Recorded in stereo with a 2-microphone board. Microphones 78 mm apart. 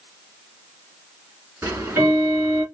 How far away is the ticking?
About 1.9 m.